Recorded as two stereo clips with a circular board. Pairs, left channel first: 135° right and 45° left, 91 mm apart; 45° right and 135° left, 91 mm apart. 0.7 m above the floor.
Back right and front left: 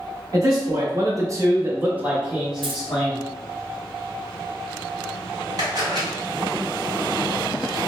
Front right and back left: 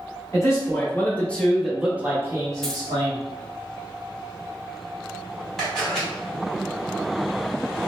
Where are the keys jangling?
40° left, 0.6 m.